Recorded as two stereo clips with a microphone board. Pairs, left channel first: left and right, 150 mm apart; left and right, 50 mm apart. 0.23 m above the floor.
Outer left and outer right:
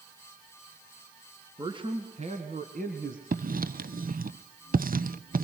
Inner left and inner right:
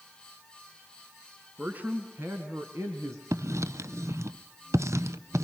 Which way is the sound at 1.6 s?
30° right (ahead or behind).